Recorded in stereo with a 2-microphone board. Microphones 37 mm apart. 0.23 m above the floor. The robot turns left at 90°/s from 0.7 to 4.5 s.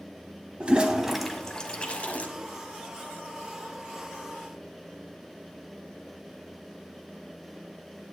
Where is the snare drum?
No snare drum in this recording.